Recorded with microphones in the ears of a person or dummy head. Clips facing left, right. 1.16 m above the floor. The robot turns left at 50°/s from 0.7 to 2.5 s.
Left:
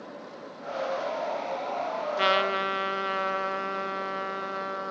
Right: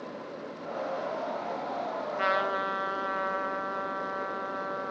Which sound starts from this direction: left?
A trumpet, at 2.2 s.